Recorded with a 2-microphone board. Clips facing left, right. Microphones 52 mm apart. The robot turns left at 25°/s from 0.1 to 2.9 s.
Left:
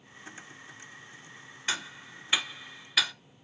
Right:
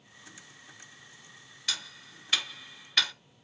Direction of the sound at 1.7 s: 30° left (ahead or behind).